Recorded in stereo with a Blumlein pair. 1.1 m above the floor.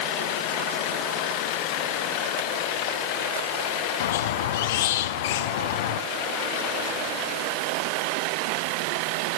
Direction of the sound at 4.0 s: 55° left.